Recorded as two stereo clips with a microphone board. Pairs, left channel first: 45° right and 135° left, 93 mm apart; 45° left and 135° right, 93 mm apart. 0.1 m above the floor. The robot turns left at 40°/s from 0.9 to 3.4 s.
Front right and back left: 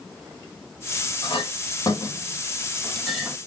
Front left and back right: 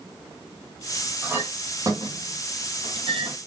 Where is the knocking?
I don't hear knocking.